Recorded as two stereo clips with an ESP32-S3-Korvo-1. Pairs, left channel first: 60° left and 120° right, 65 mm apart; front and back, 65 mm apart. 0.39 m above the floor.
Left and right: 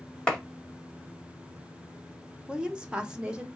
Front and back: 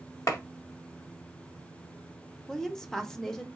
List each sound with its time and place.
0.3 s a clap: 10° right, 1.7 m
2.5 s a woman speaking: 70° right, 0.9 m